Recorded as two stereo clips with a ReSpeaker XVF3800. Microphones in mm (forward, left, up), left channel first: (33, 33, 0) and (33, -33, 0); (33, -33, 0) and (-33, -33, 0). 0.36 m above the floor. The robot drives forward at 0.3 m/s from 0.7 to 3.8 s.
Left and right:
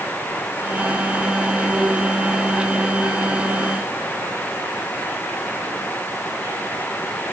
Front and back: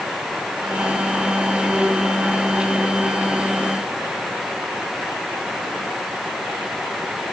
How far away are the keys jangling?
No keys jangling in this recording.